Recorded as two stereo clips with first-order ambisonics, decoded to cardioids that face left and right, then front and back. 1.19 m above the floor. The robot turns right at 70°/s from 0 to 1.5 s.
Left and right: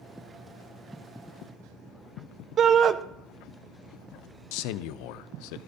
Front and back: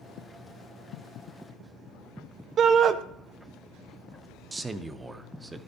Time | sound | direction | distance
2.6 | a shout | 140° right | 0.5 m
4.5 | a man speaking | 100° left | 0.5 m